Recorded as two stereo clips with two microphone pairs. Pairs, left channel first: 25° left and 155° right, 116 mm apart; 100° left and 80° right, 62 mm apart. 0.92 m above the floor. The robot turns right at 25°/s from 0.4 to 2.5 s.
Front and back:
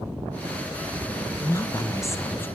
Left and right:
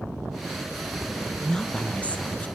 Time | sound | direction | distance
1.4 | a woman speaking | 45° left | 0.6 m